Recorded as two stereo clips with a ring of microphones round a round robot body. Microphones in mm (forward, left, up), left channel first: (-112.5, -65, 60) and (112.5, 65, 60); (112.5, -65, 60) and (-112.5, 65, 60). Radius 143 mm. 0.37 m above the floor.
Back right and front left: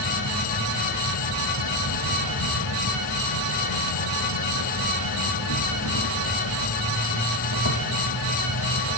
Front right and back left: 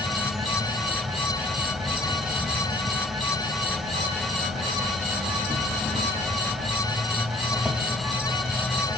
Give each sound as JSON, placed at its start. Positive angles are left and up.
{"t": 0.0, "sound": "an insect", "azimuth_deg": -120, "distance_m": 1.2}